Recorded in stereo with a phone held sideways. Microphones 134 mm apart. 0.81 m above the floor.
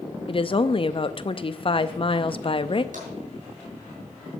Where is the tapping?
80° right, 5 m.